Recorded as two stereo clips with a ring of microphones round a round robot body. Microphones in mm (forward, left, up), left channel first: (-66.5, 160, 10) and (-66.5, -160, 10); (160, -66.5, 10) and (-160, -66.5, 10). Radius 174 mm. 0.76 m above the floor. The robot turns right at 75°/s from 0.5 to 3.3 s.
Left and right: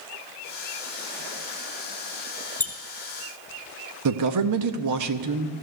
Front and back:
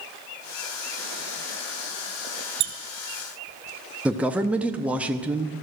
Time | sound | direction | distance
2.6 | a squeak | 170° left | 0.8 m
4.0 | a man speaking | 95° right | 0.9 m